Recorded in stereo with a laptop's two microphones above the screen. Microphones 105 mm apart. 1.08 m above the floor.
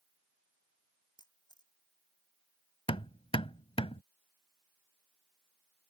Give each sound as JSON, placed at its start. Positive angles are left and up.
{"t": 1.2, "sound": "a camera shutter", "side_deg": 40}
{"t": 2.9, "sound": "hammering", "side_deg": 60}